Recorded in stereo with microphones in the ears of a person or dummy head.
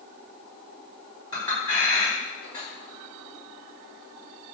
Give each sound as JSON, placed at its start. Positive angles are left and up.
{"t": 1.3, "sound": "a clink", "side_deg": 20, "distance_m": 1.8}